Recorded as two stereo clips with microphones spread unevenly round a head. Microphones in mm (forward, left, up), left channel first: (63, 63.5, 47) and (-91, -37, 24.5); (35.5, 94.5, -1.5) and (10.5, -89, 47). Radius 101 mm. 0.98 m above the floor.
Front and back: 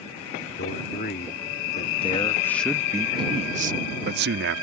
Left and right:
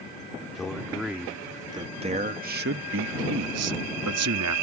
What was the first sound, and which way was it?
A man speaking, 5° right.